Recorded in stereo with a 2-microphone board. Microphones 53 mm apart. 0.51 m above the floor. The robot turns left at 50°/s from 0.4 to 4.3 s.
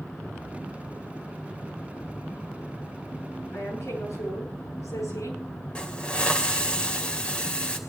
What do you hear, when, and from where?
3.5 s a woman speaking: 130° left, 9 m; by 5.4 s 95° left, 9 m
5.8 s a hiss: 20° left (ahead or behind), 2.5 m